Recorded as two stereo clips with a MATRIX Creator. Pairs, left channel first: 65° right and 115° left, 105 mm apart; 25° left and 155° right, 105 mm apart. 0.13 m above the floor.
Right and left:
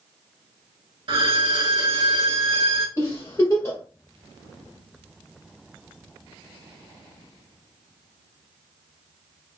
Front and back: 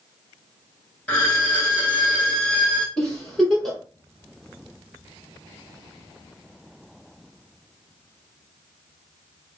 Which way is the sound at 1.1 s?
95° left.